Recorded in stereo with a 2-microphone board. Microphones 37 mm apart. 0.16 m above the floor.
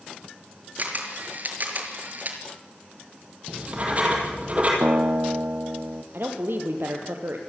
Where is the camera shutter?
50° right (ahead or behind), 3.5 m.